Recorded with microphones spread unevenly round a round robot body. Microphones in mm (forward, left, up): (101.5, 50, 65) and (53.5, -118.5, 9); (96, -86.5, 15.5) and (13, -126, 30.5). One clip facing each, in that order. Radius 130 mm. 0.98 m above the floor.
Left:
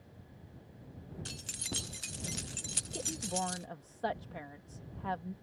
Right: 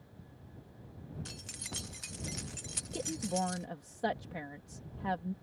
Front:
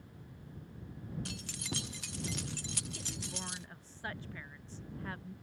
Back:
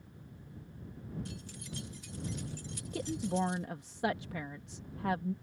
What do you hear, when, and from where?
1.2 s keys jangling: 15° left
2.9 s a woman speaking: 175° right